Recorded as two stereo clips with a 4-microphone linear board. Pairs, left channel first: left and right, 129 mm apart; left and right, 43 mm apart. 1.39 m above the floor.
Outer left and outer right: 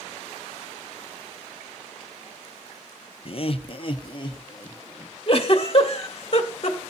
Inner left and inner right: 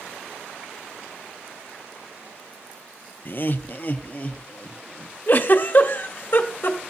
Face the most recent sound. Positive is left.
turn(degrees=45)  # may be behind; listen again after turning